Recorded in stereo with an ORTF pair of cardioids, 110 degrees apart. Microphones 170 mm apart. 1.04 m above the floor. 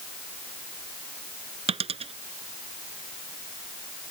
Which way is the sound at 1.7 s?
35° right.